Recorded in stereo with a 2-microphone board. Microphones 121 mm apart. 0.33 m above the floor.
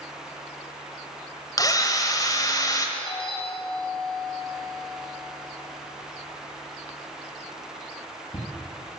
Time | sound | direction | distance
1.6 | a drill | 35° left (ahead or behind) | 1.5 m
3.0 | a doorbell | 50° left (ahead or behind) | 2.5 m